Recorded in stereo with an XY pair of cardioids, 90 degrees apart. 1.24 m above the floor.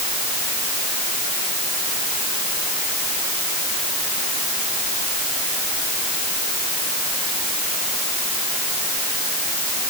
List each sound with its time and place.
Only background noise.